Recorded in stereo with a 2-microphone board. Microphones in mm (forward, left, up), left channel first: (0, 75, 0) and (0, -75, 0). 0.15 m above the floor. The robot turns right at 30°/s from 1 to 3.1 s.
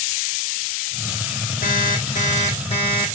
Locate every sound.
1.6 s an alarm clock: 105° left, 4.5 m; by 3.1 s 150° left, 4.5 m